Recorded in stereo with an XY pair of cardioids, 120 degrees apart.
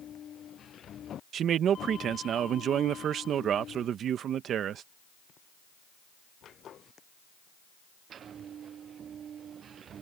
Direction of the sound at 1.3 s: 55° right.